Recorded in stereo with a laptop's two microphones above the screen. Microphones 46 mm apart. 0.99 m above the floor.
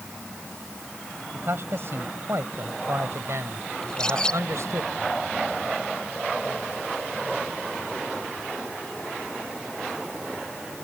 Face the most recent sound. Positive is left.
turn(degrees=15)  # may be behind; listen again after turning